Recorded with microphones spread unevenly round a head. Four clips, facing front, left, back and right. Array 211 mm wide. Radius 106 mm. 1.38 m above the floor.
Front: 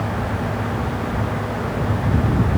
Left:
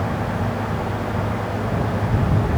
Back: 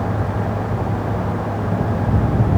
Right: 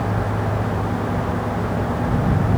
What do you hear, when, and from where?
Only background noise.